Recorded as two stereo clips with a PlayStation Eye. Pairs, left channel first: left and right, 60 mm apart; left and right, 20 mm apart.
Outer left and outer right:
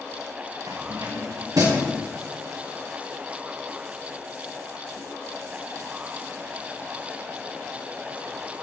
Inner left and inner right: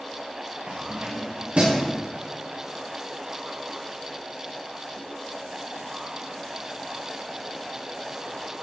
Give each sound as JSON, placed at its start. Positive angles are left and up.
{"t": 0.7, "sound": "keys jangling", "side_deg": -80, "distance_m": 8.0}